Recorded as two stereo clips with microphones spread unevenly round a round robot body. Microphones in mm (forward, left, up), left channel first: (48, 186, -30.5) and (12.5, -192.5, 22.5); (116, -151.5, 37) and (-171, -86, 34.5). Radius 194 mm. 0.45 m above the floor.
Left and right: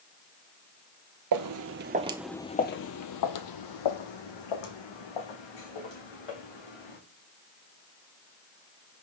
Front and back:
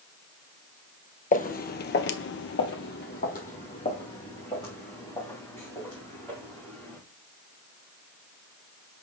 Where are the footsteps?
70° right, 0.7 m; by 7.0 s 75° left, 2.5 m.